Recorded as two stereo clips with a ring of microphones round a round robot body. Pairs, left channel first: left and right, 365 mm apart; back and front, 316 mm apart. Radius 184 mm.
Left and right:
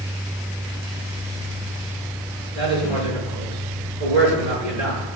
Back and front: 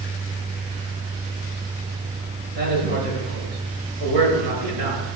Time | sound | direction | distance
2.5 | a woman speaking | 35° right | 7.5 m